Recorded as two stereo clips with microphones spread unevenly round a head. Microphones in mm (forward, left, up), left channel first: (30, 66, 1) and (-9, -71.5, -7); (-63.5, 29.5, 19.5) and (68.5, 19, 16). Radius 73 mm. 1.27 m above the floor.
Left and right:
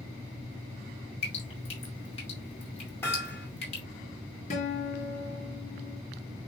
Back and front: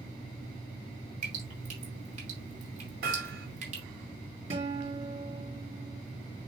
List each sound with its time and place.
1.2 s dripping: 30° left, 4.5 m
3.0 s hammering: straight ahead, 3.5 m
4.5 s a guitar: 35° left, 4 m